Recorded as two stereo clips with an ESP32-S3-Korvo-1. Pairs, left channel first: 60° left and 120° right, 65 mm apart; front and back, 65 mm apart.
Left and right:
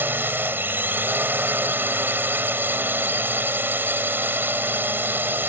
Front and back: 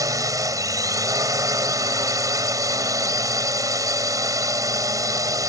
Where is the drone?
175° right.